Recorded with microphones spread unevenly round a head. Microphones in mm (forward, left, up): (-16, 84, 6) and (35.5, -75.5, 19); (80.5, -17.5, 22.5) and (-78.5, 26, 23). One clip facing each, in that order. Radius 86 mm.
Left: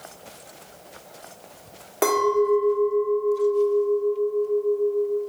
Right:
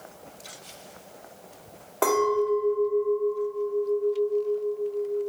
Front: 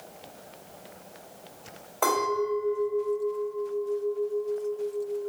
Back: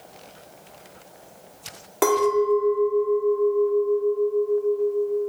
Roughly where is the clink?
Behind.